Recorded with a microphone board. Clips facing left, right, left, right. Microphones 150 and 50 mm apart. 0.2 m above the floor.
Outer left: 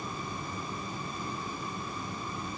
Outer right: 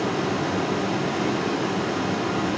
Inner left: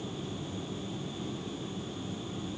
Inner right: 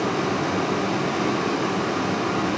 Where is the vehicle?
80° right.